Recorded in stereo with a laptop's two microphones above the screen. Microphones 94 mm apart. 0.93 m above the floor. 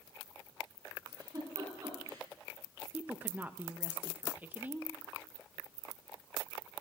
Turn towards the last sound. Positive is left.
turn(degrees=-20)  # may be behind; listen again after turning